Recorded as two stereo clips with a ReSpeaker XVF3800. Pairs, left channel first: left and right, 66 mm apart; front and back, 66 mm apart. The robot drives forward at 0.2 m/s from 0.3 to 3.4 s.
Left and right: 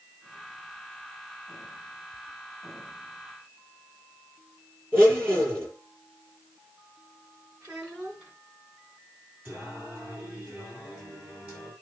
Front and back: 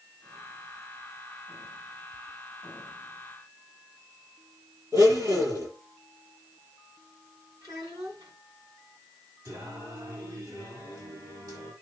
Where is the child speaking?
165° right, 5 m.